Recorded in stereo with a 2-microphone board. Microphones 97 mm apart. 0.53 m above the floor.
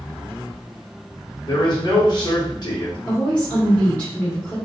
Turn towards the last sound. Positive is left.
turn(degrees=15)  # may be behind; listen again after turning